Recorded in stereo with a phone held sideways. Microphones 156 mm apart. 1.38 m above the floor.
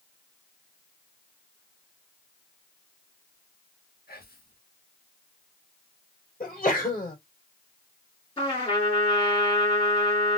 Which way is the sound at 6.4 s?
65° left (ahead or behind).